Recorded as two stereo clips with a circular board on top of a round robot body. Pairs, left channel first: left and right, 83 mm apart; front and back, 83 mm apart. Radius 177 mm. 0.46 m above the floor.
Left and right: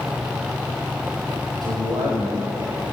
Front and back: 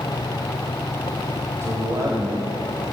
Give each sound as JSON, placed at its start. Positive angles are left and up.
{"t": 1.6, "sound": "a man speaking", "azimuth_deg": -120, "distance_m": 3.0}